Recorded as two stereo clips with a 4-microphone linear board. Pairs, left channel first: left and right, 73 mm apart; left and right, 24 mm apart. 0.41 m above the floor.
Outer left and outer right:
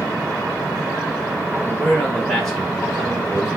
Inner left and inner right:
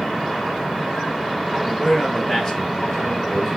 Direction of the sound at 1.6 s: 5° left (ahead or behind).